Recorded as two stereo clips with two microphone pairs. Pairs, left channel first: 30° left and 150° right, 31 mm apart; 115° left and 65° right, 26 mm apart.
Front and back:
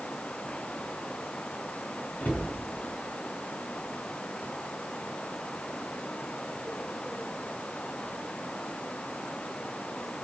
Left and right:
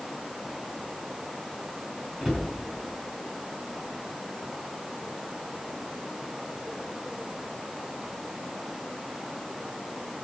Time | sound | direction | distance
2.2 | a cupboard door | 5° left | 5 m